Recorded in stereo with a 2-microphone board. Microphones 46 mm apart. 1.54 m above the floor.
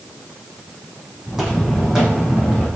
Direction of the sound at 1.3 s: 10° right (ahead or behind).